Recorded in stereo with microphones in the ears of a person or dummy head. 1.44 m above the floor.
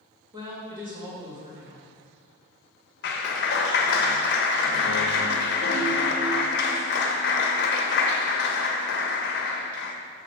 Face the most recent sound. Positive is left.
turn(degrees=55)  # may be behind; listen again after turning